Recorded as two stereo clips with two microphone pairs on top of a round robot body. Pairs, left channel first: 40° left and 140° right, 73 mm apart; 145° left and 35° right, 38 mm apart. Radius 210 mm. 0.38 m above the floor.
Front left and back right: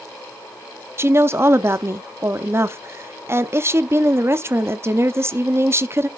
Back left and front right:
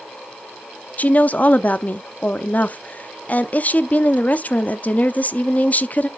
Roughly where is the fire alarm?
No fire alarm in this recording.